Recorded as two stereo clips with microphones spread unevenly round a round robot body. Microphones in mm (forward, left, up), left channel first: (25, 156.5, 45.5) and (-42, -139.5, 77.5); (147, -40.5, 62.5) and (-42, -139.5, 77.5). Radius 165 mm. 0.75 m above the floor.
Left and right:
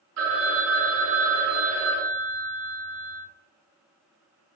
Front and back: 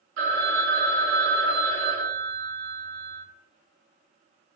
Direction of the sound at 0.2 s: 145° right.